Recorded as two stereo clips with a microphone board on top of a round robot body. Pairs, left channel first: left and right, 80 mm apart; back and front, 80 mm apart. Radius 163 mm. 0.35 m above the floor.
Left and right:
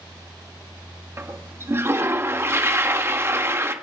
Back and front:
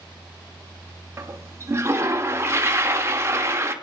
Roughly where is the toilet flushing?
Ahead right.